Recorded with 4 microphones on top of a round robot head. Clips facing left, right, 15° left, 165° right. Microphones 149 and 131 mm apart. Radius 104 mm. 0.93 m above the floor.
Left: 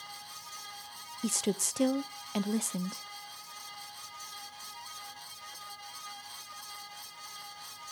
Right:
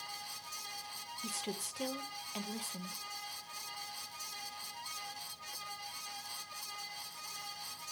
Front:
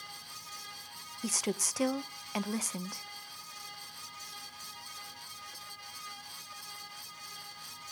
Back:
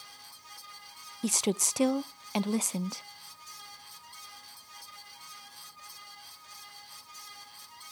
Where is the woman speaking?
130° left, 0.6 m.